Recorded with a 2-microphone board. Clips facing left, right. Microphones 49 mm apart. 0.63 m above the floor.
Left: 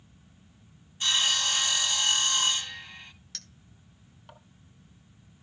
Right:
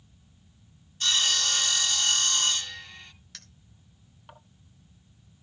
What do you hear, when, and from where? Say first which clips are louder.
1.0 s sawing: even; 20° left (ahead or behind), 1.2 m
3.3 s a clink: left 1 dB; 5° right (ahead or behind), 1.6 m